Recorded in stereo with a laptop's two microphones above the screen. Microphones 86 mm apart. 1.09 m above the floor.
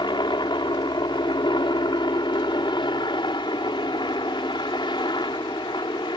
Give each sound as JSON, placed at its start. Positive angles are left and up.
{"t": 0.0, "sound": "a helicopter", "side_deg": 60}